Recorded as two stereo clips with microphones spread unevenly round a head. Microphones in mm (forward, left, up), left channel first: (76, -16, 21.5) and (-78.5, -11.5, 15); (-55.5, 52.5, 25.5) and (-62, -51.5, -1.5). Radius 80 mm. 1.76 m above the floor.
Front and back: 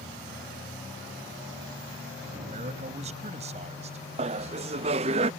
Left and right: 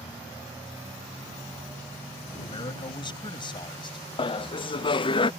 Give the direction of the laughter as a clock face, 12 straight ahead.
8 o'clock.